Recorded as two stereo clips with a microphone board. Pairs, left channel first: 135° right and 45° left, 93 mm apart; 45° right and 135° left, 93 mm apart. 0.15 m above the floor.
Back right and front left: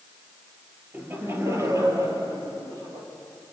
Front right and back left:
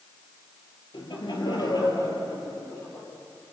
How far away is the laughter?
About 4 m.